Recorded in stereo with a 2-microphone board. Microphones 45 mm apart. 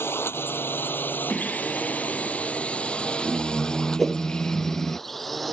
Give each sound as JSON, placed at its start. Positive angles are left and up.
{"t": 0.0, "sound": "a drone", "side_deg": 60}
{"t": 1.3, "sound": "singing", "side_deg": 20}
{"t": 4.0, "sound": "a whoosh", "side_deg": 0}